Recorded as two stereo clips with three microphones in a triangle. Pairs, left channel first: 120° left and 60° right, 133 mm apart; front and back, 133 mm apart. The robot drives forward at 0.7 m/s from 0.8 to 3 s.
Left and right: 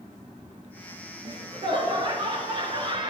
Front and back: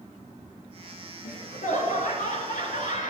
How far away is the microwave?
I don't hear a microwave.